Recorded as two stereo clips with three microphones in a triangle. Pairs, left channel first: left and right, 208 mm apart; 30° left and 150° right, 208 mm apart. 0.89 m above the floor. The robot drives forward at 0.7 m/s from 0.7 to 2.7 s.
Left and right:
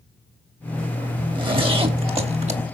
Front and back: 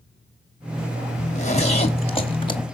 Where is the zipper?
25° right, 3 m; by 2.7 s 40° right, 2 m.